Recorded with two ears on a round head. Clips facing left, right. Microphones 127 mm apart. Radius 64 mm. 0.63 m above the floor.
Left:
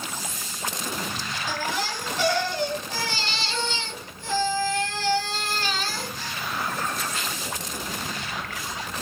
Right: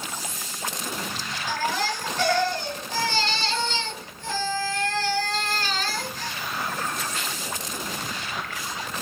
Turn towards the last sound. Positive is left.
turn(degrees=10)  # may be behind; listen again after turning